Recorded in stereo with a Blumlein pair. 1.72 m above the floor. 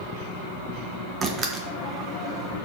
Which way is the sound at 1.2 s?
20° right.